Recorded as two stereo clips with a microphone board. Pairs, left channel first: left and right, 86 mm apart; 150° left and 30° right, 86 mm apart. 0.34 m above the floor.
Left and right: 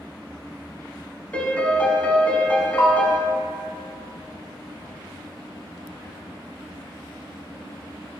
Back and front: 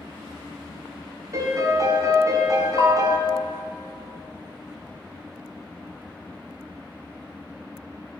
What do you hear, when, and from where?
1.3 s a piano: 15° left, 1.0 m
2.8 s a bell: 140° left, 2.5 m